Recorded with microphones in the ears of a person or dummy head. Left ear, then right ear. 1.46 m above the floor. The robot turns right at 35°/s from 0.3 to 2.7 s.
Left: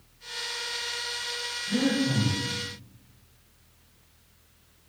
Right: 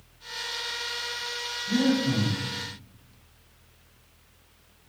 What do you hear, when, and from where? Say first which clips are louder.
1.7 s breathing: right 2 dB; 80° right, 1.5 m; by 2.4 s 60° right (ahead or behind), 1.5 m